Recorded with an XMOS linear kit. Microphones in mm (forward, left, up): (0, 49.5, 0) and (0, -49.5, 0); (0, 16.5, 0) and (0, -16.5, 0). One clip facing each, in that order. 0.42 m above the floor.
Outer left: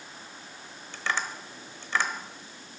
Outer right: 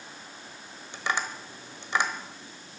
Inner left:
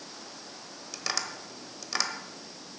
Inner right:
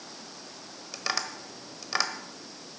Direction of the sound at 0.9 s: 20° right (ahead or behind).